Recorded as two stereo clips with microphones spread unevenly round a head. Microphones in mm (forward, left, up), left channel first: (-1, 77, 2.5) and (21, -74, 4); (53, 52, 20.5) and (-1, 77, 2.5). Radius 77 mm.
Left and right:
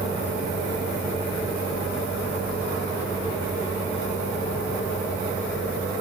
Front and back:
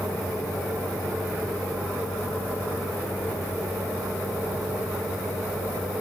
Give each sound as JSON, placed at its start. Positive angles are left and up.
{"t": 0.0, "sound": "a fan", "azimuth_deg": -5, "distance_m": 4.0}